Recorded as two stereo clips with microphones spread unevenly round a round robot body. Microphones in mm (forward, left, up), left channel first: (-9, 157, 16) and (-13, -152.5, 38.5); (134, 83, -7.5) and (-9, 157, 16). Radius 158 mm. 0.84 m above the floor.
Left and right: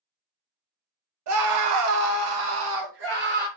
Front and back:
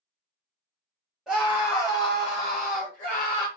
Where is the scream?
110° right, 0.8 m; by 3.5 s 30° right, 1.2 m.